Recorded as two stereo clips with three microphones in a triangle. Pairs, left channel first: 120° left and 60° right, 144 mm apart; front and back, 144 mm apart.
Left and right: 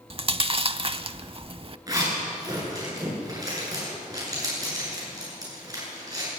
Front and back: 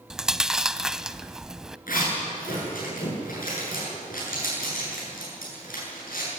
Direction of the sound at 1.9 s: 5° left.